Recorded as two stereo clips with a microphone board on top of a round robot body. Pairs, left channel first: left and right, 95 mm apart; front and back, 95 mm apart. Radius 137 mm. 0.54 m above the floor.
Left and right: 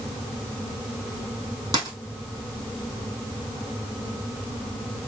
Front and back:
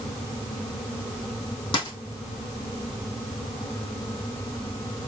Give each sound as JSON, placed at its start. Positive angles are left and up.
{"t": 1.7, "sound": "a dropped coin", "azimuth_deg": -45, "distance_m": 1.9}